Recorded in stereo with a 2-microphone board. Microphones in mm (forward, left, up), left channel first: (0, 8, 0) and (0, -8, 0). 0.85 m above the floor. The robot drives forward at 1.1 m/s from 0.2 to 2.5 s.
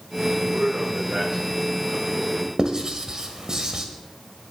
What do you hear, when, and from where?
0.3 s a man speaking: 65° right (ahead or behind), 3 m; by 2.5 s 35° right (ahead or behind), 4.5 m
2.6 s writing: 40° right (ahead or behind), 1.7 m